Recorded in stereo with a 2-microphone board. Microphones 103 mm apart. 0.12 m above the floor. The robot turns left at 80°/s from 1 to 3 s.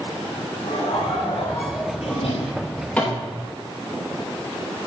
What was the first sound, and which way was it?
Laughter, 75° left.